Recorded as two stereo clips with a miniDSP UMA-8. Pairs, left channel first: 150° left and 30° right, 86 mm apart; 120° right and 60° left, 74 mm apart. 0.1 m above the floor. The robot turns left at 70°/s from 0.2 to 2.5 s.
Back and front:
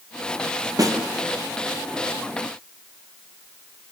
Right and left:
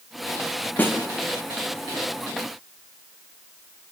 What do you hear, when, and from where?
0.8 s a snare drum: 60° right, 2 m; by 1.0 s 75° right, 2 m